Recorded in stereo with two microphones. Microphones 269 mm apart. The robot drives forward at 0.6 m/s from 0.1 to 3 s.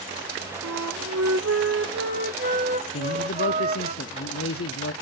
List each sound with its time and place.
0.6 s a flute: 70° right (ahead or behind), 0.6 m; by 3.9 s 25° right (ahead or behind), 1.4 m
2.9 s a man speaking: 55° left (ahead or behind), 0.5 m